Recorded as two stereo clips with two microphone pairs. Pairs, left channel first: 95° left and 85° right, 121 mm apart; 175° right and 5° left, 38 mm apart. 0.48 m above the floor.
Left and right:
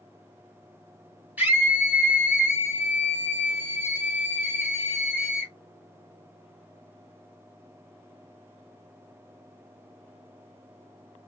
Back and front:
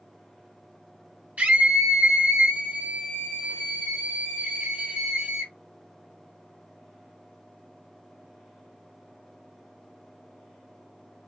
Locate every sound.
1.4 s a scream: 10° right, 1.8 m